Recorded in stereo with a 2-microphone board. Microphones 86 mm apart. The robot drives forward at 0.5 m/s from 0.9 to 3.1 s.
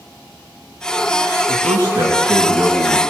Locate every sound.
1.5 s a man speaking: 60° right (ahead or behind), 3 m; by 3.0 s 55° right (ahead or behind), 3.5 m